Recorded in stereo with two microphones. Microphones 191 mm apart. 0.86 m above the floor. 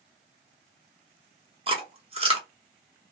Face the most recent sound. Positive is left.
turn(degrees=-30)  # may be behind; listen again after turning